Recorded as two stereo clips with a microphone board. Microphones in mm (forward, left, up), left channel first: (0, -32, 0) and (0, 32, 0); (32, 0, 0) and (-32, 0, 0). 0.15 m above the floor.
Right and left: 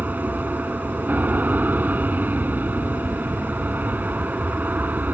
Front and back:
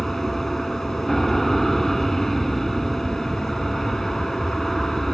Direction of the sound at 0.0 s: 80° left.